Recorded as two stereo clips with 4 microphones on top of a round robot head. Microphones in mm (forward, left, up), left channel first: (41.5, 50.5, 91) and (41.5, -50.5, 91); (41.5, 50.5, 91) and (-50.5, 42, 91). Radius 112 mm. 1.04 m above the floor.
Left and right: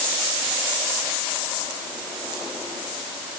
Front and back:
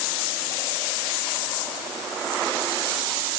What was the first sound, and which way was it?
Only background noise.